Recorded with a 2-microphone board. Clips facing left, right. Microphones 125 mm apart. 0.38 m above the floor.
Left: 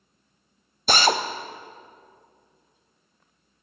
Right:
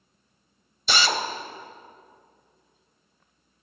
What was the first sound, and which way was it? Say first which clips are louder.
A drill: left 4 dB; 45° left (ahead or behind).